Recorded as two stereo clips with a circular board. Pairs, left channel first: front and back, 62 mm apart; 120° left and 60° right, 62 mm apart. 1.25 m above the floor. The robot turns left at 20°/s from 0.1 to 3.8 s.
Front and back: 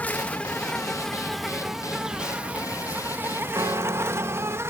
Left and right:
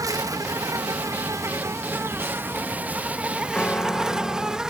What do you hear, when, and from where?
0.0 s an insect: 65° right; by 4.7 s 135° right
3.5 s a piano: 170° right; by 4.6 s 175° right